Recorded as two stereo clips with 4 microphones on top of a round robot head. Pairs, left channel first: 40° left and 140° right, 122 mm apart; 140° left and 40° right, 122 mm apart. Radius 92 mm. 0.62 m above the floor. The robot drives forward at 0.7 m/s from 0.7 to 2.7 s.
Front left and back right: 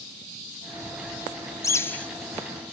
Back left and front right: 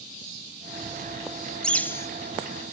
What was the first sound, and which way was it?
A bird, 65° left.